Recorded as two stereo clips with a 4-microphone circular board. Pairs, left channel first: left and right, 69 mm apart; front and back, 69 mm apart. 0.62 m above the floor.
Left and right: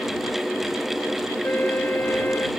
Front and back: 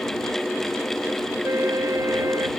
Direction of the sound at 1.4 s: 145° left.